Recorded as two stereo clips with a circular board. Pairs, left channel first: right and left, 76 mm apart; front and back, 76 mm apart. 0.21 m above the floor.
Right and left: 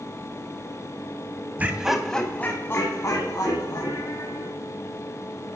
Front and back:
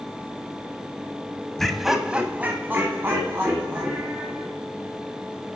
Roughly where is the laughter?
Left.